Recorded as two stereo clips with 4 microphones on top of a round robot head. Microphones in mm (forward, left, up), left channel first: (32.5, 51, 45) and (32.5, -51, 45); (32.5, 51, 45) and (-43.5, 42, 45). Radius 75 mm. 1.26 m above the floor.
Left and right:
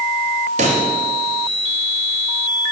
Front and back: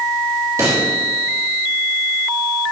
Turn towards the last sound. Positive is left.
turn(degrees=-110)